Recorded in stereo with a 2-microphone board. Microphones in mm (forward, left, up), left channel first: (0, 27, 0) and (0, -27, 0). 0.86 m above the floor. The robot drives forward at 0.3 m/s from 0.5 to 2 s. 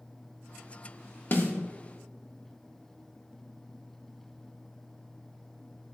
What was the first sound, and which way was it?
A snare drum, 45° left (ahead or behind).